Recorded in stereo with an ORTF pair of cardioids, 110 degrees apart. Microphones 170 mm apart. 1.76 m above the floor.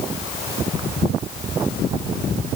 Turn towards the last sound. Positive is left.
No sound to turn to.